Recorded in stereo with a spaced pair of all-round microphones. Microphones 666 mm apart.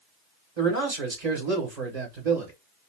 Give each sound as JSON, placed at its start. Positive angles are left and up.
{"t": 0.6, "sound": "a man speaking", "side_deg": -65, "distance_m": 1.6}